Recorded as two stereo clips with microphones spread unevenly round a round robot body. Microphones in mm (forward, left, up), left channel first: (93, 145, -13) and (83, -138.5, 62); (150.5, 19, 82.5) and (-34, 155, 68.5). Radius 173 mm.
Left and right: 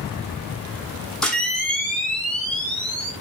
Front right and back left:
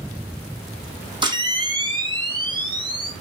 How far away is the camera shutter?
About 1.0 m.